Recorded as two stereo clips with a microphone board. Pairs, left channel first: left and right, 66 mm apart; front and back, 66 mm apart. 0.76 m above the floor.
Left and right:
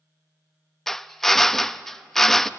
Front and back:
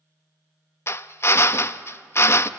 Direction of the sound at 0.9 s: 5° left.